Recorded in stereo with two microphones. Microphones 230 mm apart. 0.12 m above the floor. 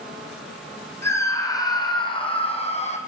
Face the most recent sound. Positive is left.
turn(degrees=30)  # may be behind; listen again after turning